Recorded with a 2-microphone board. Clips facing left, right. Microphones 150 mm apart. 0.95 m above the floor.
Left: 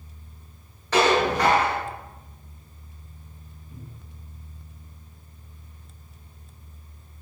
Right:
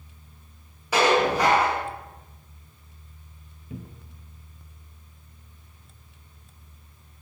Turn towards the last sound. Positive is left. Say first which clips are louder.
# right 6 dB
turn(degrees=-80)